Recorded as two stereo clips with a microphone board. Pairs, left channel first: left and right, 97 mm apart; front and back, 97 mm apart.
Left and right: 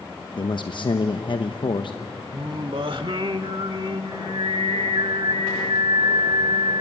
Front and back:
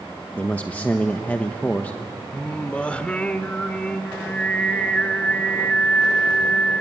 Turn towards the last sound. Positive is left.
turn(degrees=-75)